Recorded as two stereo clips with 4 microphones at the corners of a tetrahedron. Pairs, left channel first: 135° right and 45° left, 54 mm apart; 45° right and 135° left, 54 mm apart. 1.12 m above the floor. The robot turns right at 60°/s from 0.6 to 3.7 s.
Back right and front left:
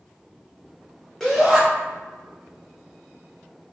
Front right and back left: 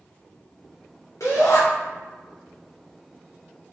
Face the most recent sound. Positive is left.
turn(degrees=95)